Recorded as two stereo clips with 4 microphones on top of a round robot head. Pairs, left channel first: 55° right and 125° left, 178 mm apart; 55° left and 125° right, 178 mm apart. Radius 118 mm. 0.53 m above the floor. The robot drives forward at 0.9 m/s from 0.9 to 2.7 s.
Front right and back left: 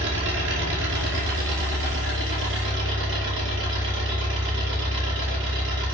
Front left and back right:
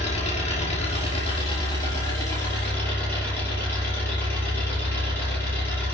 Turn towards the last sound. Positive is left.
turn(degrees=135)